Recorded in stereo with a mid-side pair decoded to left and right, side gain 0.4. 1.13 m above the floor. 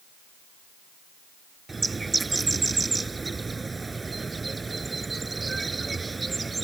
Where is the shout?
I don't hear a shout.